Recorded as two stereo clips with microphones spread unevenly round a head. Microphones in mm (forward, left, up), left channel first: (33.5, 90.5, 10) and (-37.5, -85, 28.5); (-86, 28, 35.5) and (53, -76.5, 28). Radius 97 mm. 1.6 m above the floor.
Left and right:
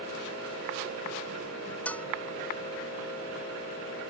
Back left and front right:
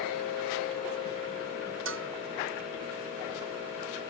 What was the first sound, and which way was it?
A bell, 15° right.